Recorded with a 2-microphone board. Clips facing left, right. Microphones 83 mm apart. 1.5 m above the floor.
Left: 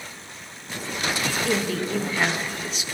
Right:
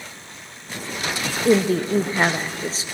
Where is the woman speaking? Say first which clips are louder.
Right 11 dB; 35° right (ahead or behind), 0.6 m.